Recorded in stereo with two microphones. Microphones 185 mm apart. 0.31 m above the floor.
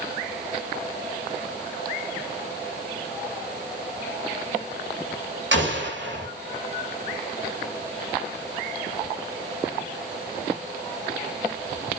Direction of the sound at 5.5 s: 85° right.